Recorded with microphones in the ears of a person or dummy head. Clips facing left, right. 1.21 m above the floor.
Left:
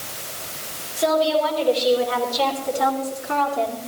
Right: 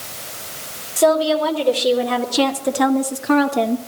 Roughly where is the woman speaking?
Right.